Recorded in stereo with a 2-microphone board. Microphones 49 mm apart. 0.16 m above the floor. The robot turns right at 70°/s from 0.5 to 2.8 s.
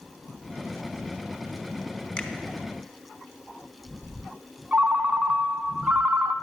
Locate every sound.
2.2 s a finger snap: 15° left (ahead or behind), 0.9 m; by 2.3 s 20° left (ahead or behind), 0.9 m
4.7 s a ringtone: 30° right (ahead or behind), 0.6 m